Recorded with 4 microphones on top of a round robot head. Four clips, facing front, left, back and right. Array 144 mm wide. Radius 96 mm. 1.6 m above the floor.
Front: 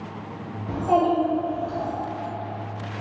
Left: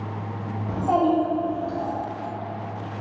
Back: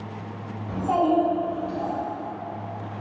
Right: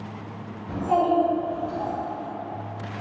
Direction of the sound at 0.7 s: 65° left.